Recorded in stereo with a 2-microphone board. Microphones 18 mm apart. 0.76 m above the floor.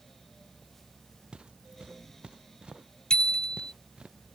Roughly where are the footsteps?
Right.